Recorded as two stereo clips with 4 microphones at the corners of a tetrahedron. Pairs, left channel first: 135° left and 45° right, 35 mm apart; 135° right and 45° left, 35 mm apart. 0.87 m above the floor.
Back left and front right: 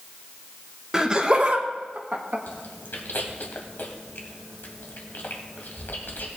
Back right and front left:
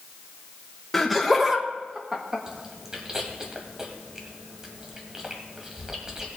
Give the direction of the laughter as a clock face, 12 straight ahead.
2 o'clock.